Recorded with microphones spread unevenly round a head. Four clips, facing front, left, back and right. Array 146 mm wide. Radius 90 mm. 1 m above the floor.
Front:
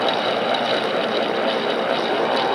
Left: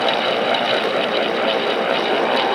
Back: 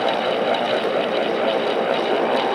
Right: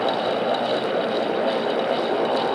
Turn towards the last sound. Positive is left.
No sound to turn to.